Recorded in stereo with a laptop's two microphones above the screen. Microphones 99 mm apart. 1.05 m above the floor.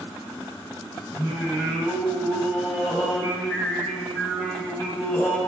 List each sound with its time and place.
1.1 s singing: 15° left (ahead or behind), 3.5 m